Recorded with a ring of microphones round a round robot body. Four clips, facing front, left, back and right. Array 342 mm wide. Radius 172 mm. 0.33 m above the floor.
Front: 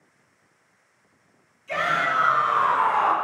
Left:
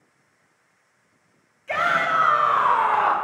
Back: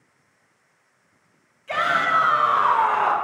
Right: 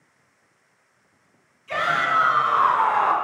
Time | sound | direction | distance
1.7 | a shout | 120° left | 2.5 m